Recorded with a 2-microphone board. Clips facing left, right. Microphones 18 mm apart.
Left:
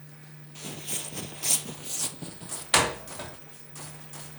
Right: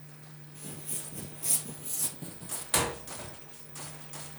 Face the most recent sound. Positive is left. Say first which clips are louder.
# left 7 dB
turn(degrees=40)  # may be behind; listen again after turning